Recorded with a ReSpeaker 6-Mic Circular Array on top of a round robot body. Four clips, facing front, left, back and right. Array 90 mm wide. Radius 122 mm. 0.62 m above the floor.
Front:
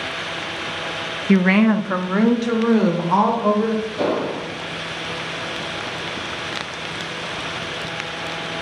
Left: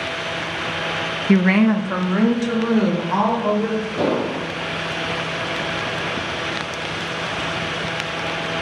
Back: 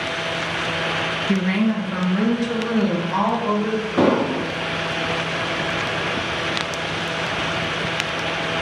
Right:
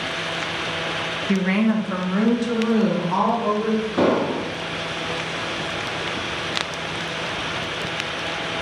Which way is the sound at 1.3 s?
45° left.